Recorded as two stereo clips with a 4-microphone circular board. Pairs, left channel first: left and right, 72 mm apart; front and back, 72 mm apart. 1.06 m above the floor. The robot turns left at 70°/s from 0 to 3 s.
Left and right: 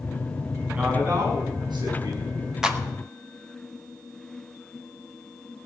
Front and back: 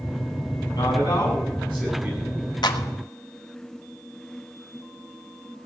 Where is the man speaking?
5° right, 7.5 m; by 2.3 s 125° right, 7.5 m.